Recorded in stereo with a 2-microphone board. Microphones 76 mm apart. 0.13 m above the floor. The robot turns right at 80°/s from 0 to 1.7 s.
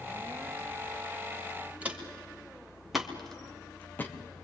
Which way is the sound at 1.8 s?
20° right (ahead or behind).